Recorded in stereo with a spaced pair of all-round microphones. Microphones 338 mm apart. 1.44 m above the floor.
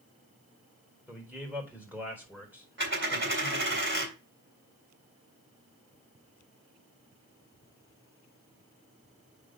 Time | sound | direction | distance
1.1 | a man speaking | 5° right (ahead or behind) | 4.5 m
2.8 | a dropped coin | 35° right (ahead or behind) | 3 m